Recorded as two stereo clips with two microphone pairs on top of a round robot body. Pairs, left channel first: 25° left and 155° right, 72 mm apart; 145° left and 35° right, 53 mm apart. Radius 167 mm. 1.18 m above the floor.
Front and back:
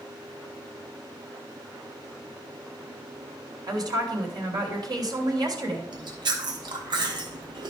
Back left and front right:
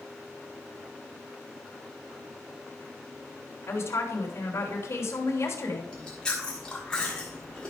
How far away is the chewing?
About 1.4 m.